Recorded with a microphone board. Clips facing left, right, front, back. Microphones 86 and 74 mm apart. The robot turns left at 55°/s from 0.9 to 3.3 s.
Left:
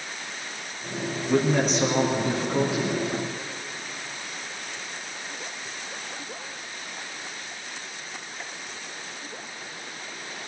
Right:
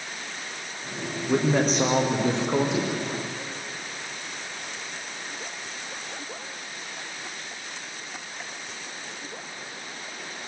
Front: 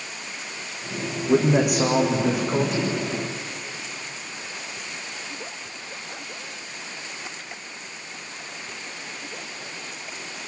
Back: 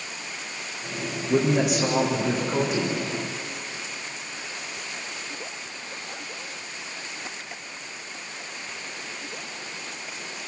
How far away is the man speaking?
About 7.5 m.